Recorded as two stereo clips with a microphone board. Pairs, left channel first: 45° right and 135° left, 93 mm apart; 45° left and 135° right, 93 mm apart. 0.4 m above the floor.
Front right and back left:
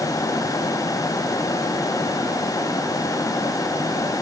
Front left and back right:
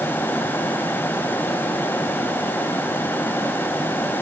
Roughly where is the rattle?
I don't hear a rattle.